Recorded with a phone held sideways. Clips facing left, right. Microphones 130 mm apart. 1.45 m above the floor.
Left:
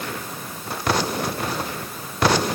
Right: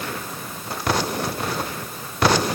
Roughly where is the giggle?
I don't hear a giggle.